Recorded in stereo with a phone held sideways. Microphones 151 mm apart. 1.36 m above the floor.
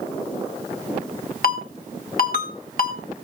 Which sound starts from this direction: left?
A ringtone, at 1.4 s.